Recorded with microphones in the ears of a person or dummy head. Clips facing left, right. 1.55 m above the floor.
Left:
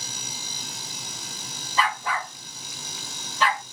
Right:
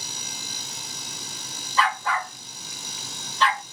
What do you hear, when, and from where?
1.8 s a dog barking: 20° left (ahead or behind), 2.5 m; by 3.6 s 5° left (ahead or behind), 3 m